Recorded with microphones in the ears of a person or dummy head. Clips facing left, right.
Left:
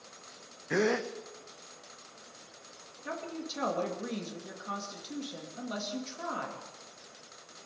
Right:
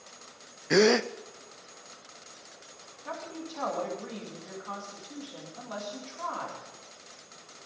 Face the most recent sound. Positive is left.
turn(degrees=30)  # may be behind; listen again after turning